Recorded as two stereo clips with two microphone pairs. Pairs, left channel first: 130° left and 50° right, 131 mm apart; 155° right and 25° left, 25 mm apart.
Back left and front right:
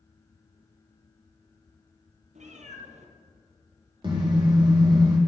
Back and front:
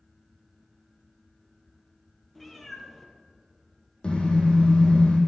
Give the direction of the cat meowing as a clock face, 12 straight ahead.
2 o'clock.